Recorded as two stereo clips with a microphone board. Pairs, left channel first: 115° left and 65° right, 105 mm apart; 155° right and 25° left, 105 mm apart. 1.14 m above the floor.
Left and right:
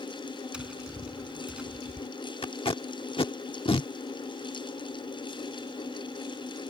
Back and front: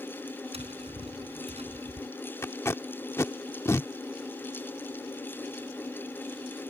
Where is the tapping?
15° left.